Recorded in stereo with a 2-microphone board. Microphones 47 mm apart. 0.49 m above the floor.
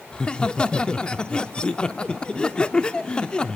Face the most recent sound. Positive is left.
turn(degrees=20)  # may be behind; listen again after turning